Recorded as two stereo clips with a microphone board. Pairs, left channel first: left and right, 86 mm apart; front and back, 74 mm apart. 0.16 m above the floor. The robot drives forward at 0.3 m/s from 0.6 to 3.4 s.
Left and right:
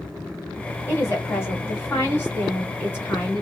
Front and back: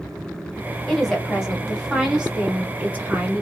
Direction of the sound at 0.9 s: 75° left.